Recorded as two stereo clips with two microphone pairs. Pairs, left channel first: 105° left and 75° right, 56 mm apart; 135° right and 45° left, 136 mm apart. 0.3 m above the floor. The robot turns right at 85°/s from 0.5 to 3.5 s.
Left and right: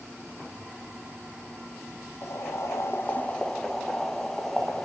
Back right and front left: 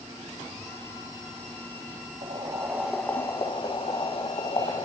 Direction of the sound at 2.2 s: 75° left.